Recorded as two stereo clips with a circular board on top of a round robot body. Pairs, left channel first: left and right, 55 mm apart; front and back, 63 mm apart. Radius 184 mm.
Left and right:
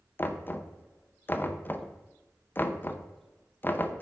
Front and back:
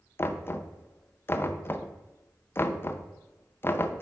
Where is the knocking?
45° left, 0.8 m.